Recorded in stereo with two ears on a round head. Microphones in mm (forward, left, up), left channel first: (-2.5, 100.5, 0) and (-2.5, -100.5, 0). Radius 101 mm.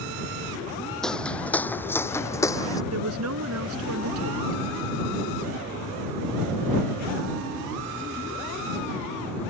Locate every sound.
1.0 s footsteps: 5° left (ahead or behind); by 2.8 s 15° left (ahead or behind)
2.9 s a woman speaking: 75° right (ahead or behind)